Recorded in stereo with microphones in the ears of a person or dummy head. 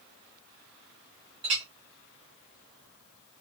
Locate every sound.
1.4 s a clink: 25° right (ahead or behind), 0.9 m